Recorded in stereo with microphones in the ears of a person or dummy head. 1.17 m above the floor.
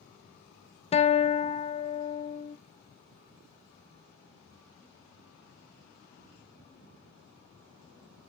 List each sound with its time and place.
0.9 s a guitar: 30° left (ahead or behind), 0.5 m